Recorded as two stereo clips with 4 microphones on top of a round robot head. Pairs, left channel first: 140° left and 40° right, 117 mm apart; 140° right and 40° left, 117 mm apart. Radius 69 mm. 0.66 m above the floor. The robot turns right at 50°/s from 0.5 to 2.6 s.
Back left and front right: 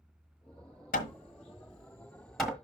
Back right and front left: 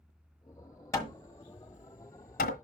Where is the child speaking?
I don't hear a child speaking.